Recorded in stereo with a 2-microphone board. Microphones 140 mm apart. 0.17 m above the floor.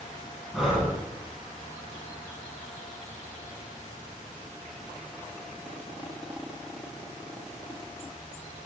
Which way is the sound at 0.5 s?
Centre (ahead or behind).